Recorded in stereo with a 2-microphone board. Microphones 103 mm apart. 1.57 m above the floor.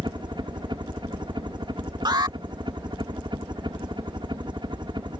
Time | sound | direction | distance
0.0 | a helicopter | 50° right (ahead or behind) | ?
2.0 | an alarm | 45° right (ahead or behind) | ?